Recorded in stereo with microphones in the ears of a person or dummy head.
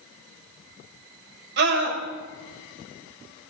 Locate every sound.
1.6 s a scream: 65° right (ahead or behind), 6.5 m